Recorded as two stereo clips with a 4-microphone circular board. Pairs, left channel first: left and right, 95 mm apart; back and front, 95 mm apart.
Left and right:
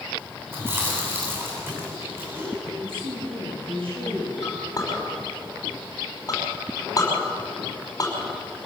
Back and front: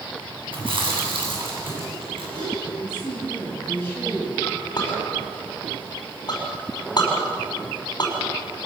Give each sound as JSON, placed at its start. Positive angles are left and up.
{"t": 0.5, "sound": "chewing", "azimuth_deg": -25, "distance_m": 9.0}
{"t": 2.8, "sound": "a woman speaking", "azimuth_deg": -110, "distance_m": 7.0}
{"t": 4.4, "sound": "a clink", "azimuth_deg": 140, "distance_m": 5.5}